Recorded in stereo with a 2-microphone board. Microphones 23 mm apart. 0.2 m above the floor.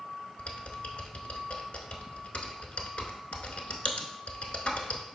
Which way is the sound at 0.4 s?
70° left (ahead or behind).